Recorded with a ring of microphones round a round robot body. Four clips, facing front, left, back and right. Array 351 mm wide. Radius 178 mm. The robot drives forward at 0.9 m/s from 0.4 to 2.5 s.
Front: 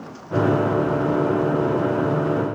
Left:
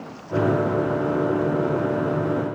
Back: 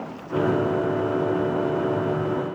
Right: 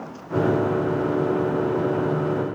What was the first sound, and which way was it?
Only background noise.